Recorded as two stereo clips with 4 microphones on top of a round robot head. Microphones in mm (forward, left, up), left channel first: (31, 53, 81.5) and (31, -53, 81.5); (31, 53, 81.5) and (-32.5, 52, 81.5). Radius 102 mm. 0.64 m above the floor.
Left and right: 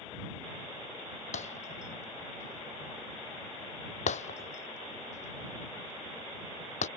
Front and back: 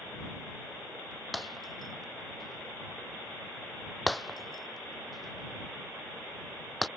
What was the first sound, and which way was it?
Breaking glass, 90° left.